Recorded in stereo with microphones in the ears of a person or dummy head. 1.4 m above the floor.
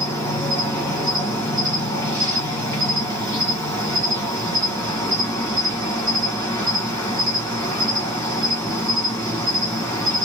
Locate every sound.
0.0 s an insect: 10° left (ahead or behind), 1.2 m